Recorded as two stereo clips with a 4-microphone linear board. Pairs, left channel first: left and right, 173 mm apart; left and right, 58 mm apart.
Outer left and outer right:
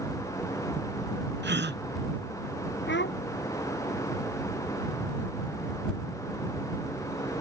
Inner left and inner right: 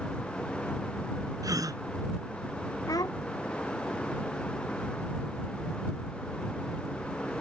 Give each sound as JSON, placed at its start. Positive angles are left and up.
{"t": 1.4, "sound": "a gasp", "side_deg": -80}
{"t": 2.9, "sound": "a child speaking", "side_deg": 85}